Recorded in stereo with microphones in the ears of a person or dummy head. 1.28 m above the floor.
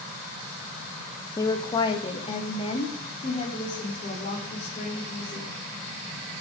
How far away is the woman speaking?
About 1.4 m.